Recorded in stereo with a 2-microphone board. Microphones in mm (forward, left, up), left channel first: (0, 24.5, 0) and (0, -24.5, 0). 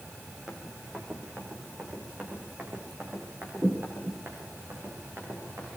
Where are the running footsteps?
10° right (ahead or behind), 4.5 m; by 5.7 s 55° right (ahead or behind), 9 m.